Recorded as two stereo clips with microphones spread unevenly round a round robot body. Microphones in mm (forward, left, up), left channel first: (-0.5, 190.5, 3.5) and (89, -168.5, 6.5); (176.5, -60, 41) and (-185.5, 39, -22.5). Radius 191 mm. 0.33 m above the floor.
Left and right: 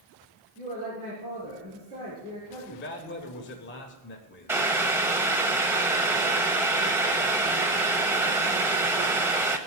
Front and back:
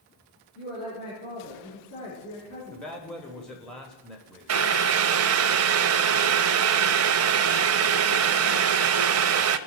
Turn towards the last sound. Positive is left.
turn(degrees=-160)